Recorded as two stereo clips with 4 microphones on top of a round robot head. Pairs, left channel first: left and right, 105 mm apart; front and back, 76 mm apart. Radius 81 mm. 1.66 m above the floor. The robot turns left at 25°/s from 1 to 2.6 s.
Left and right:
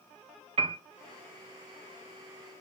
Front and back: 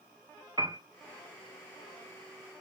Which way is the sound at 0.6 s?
115° right.